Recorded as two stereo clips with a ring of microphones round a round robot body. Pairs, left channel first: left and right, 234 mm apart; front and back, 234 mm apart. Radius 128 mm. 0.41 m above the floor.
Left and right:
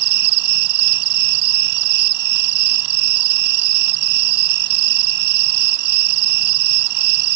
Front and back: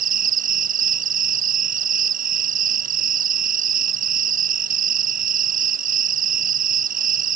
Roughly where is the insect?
Behind right.